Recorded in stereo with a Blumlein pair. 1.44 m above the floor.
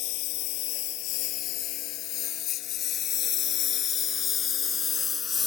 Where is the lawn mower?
40° left; by 5.5 s 15° left.